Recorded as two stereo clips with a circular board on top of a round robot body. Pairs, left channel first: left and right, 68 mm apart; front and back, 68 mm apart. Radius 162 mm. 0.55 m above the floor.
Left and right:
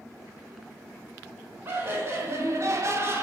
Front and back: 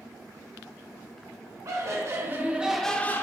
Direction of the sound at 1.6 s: 145° right.